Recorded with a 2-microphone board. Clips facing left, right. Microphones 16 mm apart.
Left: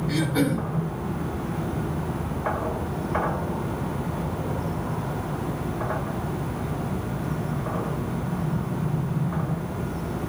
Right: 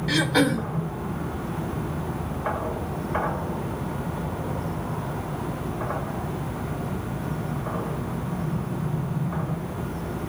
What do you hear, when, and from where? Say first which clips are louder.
0.1 s throat clearing: right 4 dB; 65° right (ahead or behind), 1.8 m